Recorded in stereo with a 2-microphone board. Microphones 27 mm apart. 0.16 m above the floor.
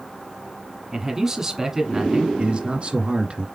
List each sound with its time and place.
0.9 s a man speaking: 20° right (ahead or behind), 1.3 m
2.4 s a man speaking: 45° right (ahead or behind), 1.5 m